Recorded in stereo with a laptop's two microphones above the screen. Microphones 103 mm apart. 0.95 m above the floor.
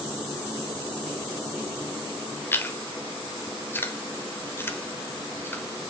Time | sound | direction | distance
2.5 | chewing | 20° left (ahead or behind) | 1.2 m